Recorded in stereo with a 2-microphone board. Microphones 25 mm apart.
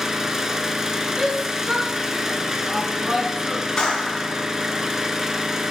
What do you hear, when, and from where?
0.0 s an engine running: 15° right (ahead or behind), 0.8 m
1.2 s a shout: 30° right (ahead or behind), 3 m
3.8 s a clap: 30° left (ahead or behind), 2.5 m